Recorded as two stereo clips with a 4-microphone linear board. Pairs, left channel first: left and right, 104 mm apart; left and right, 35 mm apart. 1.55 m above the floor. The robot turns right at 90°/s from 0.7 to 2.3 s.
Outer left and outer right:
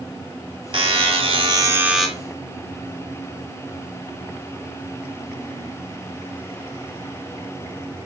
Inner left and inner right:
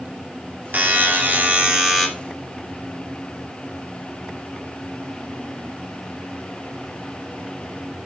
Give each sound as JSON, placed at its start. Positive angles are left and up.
{"t": 0.7, "sound": "a buzzer", "azimuth_deg": -115, "distance_m": 2.5}